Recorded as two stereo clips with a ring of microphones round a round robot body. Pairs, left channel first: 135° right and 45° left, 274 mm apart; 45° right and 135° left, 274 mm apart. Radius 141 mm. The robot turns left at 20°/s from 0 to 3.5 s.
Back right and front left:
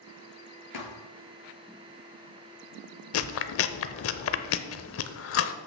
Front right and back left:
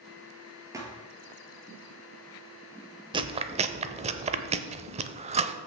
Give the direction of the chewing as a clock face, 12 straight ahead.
5 o'clock.